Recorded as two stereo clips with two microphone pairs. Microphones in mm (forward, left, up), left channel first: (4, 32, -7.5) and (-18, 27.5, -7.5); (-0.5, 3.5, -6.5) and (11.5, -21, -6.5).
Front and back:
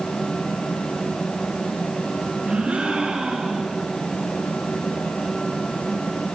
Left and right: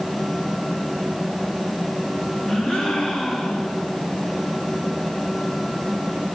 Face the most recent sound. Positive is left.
turn(degrees=165)